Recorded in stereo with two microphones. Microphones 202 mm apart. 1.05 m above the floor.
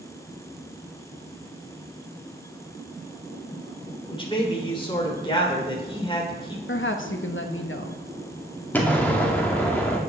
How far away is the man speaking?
About 3 m.